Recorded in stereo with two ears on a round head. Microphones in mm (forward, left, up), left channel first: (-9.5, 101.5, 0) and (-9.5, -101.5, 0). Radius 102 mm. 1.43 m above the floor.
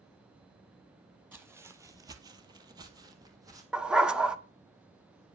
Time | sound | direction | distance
1.3 | footsteps | 10° right (ahead or behind) | 1.7 m
3.7 | a dog barking | 5° right (ahead or behind) | 0.9 m